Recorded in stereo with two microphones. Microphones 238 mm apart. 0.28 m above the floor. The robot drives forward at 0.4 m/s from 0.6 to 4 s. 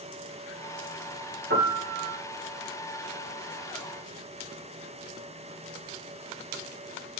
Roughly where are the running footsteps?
No running footsteps in this recording.